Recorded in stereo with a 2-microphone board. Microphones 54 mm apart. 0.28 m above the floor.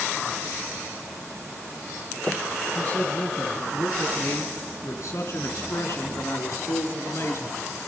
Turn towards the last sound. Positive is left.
turn(degrees=65)  # may be behind; listen again after turning